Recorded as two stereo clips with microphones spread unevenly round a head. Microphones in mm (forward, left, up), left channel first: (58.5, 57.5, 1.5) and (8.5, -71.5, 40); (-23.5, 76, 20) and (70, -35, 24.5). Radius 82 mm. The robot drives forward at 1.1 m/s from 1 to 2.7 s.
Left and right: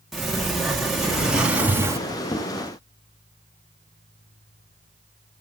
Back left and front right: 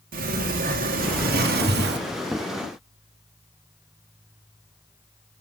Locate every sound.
0.1 s a sliding door: 20° right, 2 m; by 2.0 s 40° right, 1.1 m